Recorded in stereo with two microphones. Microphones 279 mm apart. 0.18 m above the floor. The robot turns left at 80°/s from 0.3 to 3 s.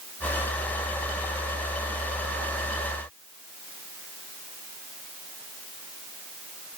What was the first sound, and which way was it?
Only background noise.